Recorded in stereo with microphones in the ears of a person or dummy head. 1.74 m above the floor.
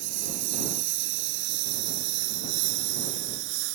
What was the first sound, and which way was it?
A lawn mower, 75° right (ahead or behind).